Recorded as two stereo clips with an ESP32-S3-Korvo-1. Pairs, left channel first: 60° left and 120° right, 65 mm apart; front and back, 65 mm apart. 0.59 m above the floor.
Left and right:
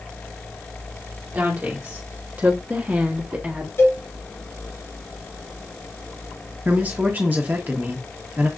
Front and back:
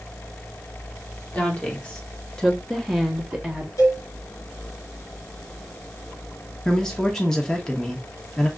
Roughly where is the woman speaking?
Ahead right.